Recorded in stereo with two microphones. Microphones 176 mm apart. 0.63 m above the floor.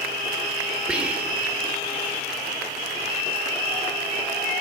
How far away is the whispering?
About 3 m.